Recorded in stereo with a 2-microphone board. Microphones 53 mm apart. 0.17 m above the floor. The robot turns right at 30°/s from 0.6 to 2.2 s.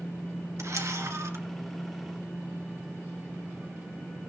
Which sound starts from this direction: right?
A camera shutter, at 0.6 s.